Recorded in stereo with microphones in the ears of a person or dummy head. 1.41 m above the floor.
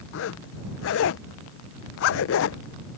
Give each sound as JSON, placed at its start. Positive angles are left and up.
{"t": 0.1, "sound": "a zipper", "side_deg": 55}